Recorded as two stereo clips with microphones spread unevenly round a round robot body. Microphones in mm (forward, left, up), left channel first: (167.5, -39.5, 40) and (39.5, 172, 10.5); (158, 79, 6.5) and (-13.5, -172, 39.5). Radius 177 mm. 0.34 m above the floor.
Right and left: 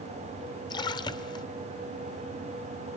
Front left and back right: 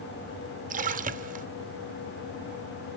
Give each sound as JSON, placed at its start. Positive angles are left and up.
{"t": 0.7, "sound": "a splash", "azimuth_deg": -115, "distance_m": 1.3}